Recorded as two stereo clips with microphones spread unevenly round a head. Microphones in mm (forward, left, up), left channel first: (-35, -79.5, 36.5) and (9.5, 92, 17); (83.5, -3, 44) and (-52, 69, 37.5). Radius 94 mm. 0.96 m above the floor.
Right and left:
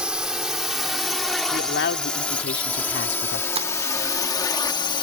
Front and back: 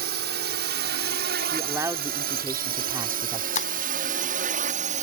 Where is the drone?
160° left; by 5.0 s 170° right.